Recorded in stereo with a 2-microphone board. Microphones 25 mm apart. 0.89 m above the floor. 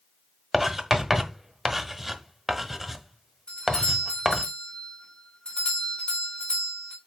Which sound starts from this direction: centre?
Writing, at 0.5 s.